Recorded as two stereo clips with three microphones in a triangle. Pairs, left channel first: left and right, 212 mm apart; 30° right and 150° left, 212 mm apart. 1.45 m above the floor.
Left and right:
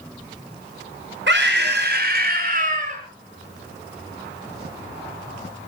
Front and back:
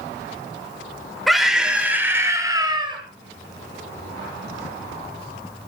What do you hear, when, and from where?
1.3 s a scream: 120° right, 7 m; by 3.0 s 145° right, 6 m